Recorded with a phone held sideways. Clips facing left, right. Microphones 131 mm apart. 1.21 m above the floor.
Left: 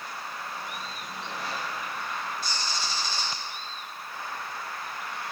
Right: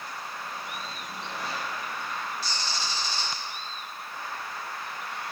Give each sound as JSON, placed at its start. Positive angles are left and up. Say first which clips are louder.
{"t": 2.4, "sound": "a bird", "louder": "even", "side_deg": 55, "distance_m": 4.5}